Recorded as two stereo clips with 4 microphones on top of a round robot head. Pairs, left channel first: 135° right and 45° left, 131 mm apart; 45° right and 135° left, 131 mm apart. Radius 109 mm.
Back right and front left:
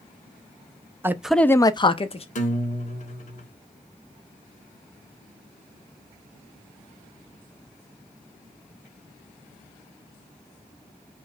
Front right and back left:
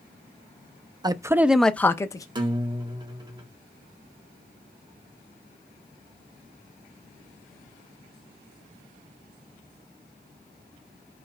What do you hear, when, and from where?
1.0 s a man speaking: 105° left, 0.6 m; by 2.2 s 105° right, 0.8 m
2.4 s a guitar: 170° right, 1.1 m